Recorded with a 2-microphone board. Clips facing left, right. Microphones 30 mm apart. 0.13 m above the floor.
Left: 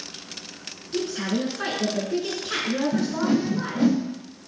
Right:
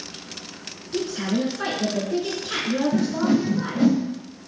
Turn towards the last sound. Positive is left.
turn(degrees=5)  # may be behind; listen again after turning